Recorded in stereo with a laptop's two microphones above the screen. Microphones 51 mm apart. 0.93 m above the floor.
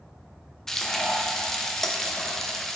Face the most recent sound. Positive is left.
turn(degrees=5)  # may be behind; listen again after turning